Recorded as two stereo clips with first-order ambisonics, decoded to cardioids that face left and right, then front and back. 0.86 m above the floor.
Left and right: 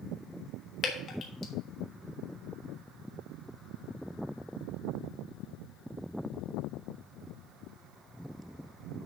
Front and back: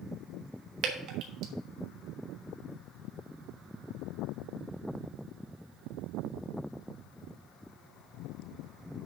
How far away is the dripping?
About 1.3 m.